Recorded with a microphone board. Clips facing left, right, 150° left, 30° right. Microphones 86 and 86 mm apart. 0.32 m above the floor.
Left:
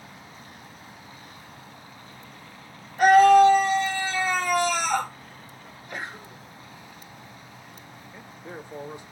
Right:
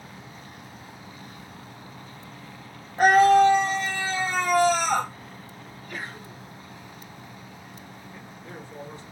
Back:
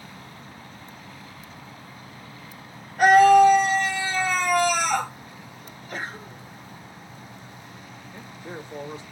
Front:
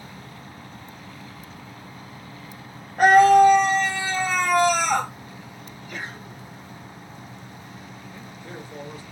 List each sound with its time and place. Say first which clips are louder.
3.0 s a scream: left 2 dB, even; 60° right, 1.4 m
5.6 s a sneeze: left 1 dB, back 2 dB; 145° left, 1.5 m
8.1 s a man speaking: left 3 dB, back 3 dB; 135° left, 1.2 m